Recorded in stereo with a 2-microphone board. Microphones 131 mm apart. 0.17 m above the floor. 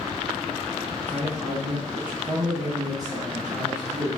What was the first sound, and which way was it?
A man speaking, 15° left (ahead or behind).